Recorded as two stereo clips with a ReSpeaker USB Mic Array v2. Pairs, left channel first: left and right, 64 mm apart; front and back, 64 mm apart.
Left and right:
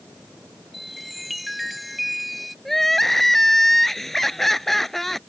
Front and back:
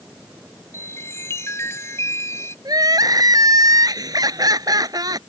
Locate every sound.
0.7 s a chime: straight ahead
2.6 s crying: 175° left